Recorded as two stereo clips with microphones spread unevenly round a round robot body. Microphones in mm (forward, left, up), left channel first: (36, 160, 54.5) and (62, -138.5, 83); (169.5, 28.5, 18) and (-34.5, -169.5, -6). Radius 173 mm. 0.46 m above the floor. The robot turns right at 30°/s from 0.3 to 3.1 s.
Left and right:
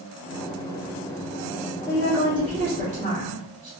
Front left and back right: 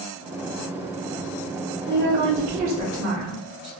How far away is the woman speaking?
About 1.0 m.